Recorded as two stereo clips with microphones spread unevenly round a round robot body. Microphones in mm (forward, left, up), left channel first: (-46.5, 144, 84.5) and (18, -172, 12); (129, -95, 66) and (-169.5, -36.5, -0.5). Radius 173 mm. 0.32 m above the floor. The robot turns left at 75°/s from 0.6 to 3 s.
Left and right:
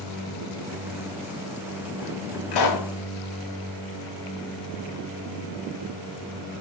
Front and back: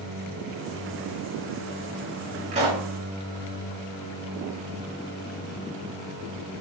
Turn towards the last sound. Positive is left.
turn(degrees=75)